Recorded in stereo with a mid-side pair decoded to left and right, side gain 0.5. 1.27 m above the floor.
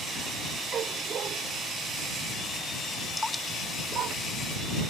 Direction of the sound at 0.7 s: 50° right.